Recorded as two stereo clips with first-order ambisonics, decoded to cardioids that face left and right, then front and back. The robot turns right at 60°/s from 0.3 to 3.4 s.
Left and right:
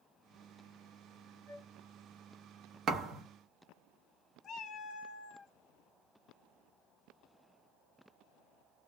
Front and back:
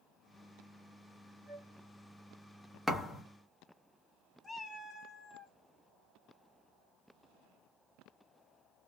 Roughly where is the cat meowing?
Left.